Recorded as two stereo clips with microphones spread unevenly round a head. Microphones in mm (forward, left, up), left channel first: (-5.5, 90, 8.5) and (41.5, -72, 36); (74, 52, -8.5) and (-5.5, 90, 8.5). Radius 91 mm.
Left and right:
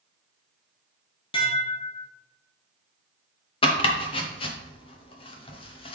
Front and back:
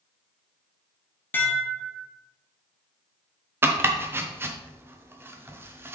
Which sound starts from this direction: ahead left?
Dishes clattering, at 1.3 s.